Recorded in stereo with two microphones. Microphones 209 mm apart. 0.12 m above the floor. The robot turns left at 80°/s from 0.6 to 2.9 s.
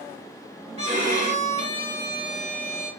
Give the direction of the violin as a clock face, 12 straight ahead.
2 o'clock.